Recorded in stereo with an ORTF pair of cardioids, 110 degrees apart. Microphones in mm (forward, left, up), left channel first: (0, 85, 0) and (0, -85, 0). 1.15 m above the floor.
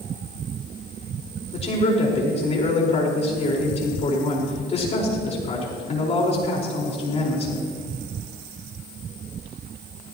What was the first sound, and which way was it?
A man speaking, 40° left.